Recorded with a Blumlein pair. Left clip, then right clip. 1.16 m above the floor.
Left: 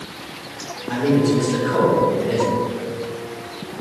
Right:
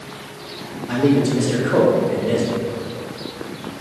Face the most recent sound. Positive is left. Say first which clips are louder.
# right 1 dB
turn(degrees=-70)